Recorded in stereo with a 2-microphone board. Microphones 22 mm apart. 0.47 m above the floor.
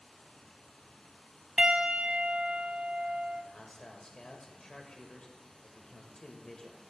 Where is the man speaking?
35° left (ahead or behind), 1.7 m.